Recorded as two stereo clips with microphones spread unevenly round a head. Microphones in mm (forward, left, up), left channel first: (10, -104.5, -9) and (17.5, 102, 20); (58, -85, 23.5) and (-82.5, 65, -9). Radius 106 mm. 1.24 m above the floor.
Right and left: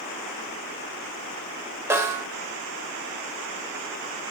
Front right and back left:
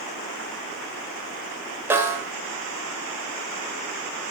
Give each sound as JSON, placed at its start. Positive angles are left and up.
{"t": 1.9, "sound": "a snare drum", "azimuth_deg": 45, "distance_m": 1.0}